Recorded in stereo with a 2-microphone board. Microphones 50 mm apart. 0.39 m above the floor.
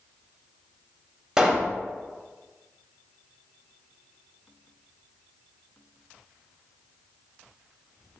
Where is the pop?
10° right (ahead or behind), 0.6 m.